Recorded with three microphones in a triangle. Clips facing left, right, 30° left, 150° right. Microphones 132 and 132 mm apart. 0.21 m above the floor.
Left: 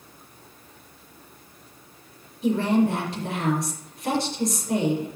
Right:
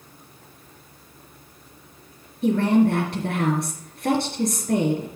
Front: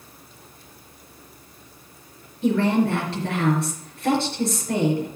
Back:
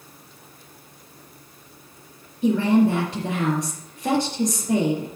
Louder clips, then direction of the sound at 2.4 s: Right 3 dB, back 2 dB; 75° right.